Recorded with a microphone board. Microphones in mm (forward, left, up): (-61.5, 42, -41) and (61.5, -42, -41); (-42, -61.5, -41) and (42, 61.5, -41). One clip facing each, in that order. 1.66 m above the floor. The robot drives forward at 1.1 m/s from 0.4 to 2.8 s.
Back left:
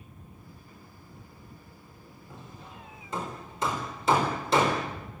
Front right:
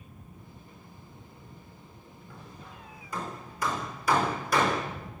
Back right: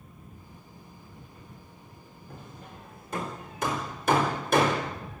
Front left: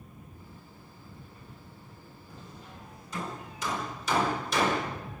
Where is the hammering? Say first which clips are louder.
Back left 1 dB, back right 3 dB; 150° right, 4.5 m.